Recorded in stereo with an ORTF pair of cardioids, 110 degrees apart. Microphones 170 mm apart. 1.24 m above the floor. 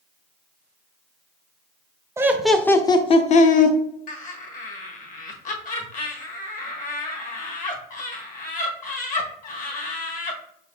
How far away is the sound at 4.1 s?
About 1.2 m.